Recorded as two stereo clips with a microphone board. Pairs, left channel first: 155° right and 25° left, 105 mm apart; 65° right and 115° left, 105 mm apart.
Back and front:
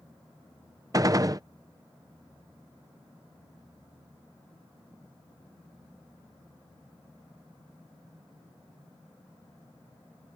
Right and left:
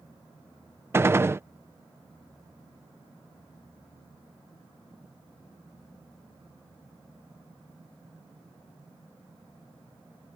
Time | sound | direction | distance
0.9 | a gunshot | 60° left | ?